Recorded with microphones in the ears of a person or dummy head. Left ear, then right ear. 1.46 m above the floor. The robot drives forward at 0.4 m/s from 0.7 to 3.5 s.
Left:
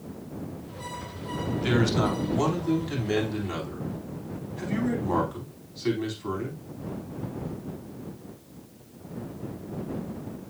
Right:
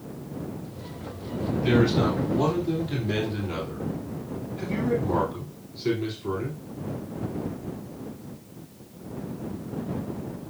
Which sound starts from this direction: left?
A man speaking, at 1.5 s.